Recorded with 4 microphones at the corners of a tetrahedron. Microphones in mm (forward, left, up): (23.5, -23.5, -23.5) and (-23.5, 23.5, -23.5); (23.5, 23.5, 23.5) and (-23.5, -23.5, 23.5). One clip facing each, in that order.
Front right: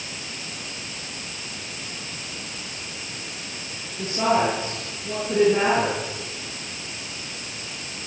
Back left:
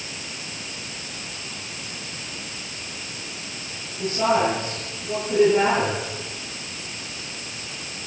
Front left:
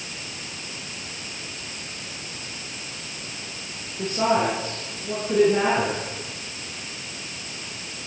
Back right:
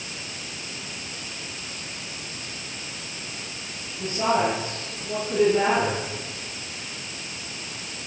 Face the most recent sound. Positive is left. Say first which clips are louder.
# back left 1 dB, front left 1 dB
turn(degrees=20)